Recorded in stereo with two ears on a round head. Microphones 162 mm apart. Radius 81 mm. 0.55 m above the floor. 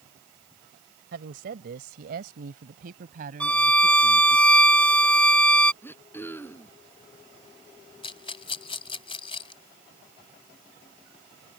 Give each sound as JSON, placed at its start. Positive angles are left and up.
{"t": 1.1, "sound": "a woman speaking", "side_deg": -65}
{"t": 3.4, "sound": "a violin", "side_deg": 5}
{"t": 5.8, "sound": "throat clearing", "side_deg": 15}
{"t": 8.0, "sound": "a rattle", "side_deg": 30}